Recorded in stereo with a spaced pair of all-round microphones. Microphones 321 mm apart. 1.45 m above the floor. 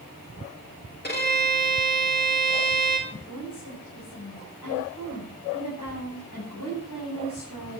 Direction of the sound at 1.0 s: 30° left (ahead or behind).